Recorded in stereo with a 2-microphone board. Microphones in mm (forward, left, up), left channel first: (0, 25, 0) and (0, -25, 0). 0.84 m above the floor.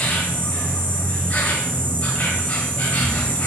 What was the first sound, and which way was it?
An insect, 25° left (ahead or behind).